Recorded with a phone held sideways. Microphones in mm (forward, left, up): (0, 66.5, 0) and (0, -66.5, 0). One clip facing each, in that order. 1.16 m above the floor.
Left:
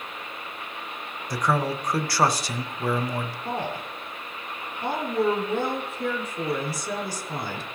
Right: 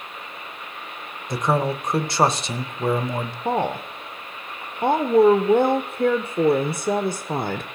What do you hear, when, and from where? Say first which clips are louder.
1.3 s a man speaking: right 3 dB; 25° right (ahead or behind), 0.6 m
3.5 s a woman speaking: right 11 dB; 55° right (ahead or behind), 0.6 m